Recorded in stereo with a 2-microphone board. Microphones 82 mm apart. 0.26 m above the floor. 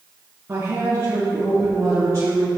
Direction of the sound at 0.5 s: 30° right (ahead or behind).